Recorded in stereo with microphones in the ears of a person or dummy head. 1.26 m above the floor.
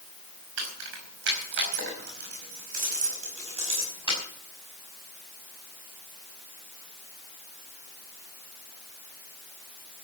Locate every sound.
0.6 s keys jangling: 80° right, 5 m; by 4.2 s 25° right (ahead or behind), 6 m